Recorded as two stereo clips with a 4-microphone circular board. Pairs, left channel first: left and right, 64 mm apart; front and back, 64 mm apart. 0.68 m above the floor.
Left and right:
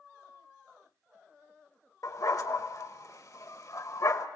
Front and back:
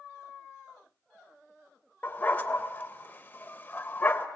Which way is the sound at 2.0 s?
65° left.